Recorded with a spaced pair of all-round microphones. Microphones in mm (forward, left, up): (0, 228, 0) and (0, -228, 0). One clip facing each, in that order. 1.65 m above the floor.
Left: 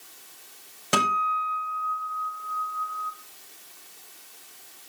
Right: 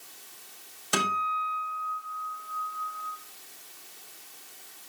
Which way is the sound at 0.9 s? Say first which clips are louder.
Left 3 dB; 75° left (ahead or behind).